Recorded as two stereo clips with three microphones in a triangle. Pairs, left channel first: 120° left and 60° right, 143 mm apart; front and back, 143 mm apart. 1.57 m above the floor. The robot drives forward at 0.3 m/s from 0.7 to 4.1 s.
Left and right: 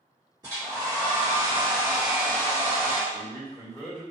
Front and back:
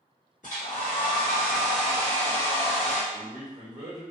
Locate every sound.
0.4 s a hair dryer: 5° right, 1.6 m
3.1 s a man speaking: 150° right, 1.6 m; by 4.0 s 155° right, 1.8 m